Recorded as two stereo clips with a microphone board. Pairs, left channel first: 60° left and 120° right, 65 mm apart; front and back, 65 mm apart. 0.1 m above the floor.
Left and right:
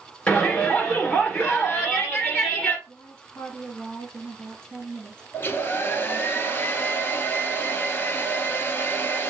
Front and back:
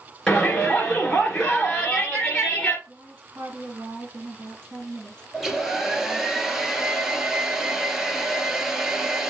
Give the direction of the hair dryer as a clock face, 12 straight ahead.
9 o'clock.